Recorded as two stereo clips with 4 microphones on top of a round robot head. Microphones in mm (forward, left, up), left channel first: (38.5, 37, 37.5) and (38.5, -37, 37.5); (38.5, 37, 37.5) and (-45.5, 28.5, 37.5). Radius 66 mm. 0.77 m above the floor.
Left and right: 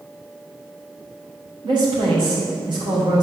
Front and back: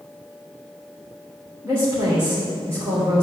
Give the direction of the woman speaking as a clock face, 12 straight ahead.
4 o'clock.